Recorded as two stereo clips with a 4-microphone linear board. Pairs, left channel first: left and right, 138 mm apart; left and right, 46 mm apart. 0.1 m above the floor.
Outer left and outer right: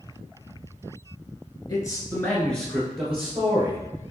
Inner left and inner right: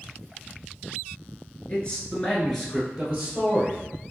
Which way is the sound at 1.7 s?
30° left (ahead or behind).